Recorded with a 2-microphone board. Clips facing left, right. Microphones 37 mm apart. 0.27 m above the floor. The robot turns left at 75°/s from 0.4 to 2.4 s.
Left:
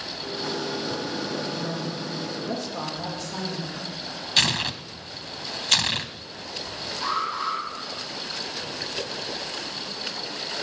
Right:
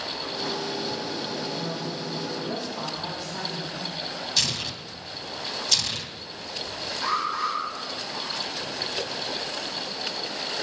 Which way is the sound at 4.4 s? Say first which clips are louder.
Left 7 dB; 50° left (ahead or behind).